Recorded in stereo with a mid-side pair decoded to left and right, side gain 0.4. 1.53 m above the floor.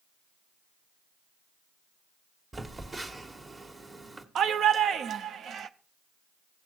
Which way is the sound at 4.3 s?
65° right.